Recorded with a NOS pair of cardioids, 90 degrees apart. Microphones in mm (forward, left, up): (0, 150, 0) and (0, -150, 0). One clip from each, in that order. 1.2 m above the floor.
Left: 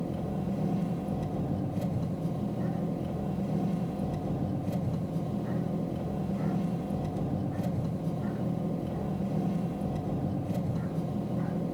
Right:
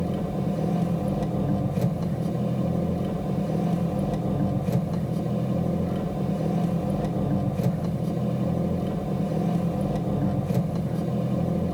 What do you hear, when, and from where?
0.0 s an engine running: 65° right, 3 m